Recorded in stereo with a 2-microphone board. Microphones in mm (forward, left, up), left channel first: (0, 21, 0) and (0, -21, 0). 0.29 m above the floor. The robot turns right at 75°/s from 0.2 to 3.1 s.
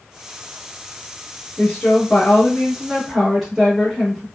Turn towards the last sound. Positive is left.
turn(degrees=-5)  # may be behind; listen again after turning